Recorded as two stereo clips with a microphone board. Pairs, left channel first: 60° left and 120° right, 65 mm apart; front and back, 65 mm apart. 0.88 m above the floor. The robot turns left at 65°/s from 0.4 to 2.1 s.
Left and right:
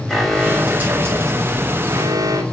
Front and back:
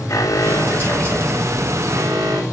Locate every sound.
0.1 s an alarm: 30° right, 6 m; by 2.4 s 140° right, 6 m